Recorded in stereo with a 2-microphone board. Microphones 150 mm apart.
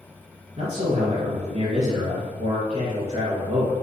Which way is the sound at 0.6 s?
35° right (ahead or behind).